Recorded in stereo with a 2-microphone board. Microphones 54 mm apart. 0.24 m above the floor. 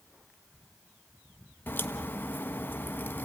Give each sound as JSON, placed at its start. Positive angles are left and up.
{"t": 1.7, "sound": "a crack", "side_deg": 40, "distance_m": 1.1}